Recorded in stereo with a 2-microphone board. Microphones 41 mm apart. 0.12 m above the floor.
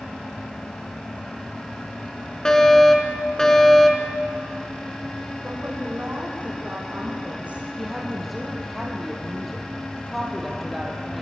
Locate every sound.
2.5 s a fire alarm: 20° left (ahead or behind), 2.5 m
5.4 s a woman speaking: 30° right (ahead or behind), 7.5 m
7.8 s a woman speaking: 5° left (ahead or behind), 4 m